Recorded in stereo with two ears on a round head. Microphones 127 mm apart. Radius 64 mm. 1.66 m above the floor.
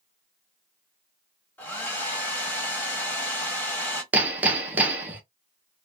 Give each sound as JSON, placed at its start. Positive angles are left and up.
{"t": 1.6, "sound": "a hair dryer", "side_deg": 10, "distance_m": 1.1}
{"t": 4.1, "sound": "hammering", "side_deg": -10, "distance_m": 0.7}